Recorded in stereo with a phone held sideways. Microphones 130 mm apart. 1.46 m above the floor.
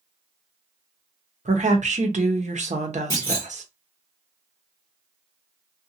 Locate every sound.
1.4 s a woman speaking: 65° right (ahead or behind), 0.8 m
3.1 s a clunk: 20° left (ahead or behind), 1.6 m